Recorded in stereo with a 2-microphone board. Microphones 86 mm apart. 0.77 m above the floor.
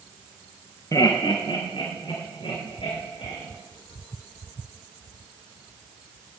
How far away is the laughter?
About 0.9 m.